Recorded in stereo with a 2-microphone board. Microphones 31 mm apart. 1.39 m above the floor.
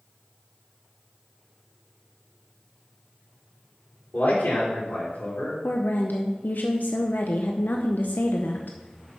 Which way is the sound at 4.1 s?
80° left.